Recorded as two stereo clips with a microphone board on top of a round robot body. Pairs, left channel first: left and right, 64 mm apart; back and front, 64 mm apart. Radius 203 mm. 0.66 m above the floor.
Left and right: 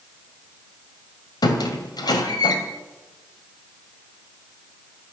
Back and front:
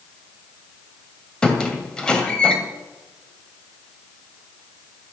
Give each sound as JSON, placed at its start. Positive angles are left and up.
{"t": 1.4, "sound": "a squeak", "azimuth_deg": 100, "distance_m": 2.0}